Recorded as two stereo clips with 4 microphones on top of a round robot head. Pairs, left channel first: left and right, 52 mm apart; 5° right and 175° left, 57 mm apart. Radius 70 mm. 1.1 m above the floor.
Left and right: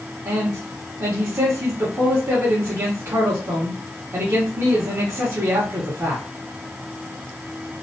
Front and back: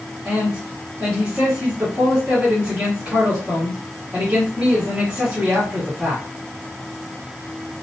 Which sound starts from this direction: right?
A man speaking, at 0.2 s.